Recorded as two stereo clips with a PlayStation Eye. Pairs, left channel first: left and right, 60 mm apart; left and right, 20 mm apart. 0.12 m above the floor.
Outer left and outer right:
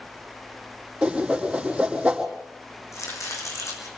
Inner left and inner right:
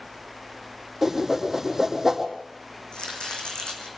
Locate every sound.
1.0 s a whoosh: 15° right (ahead or behind), 3.5 m
2.9 s chopping: 60° left (ahead or behind), 3.5 m